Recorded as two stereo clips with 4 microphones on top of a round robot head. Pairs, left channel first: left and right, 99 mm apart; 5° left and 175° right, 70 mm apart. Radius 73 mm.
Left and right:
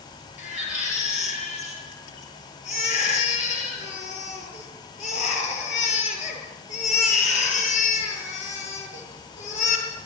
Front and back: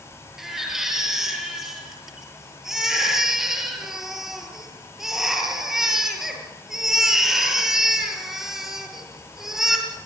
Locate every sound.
0.4 s a baby crying: 100° left, 7.5 m